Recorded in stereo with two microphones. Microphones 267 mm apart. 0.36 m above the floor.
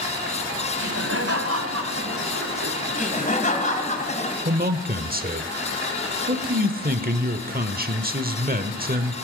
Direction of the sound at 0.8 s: 55° right (ahead or behind).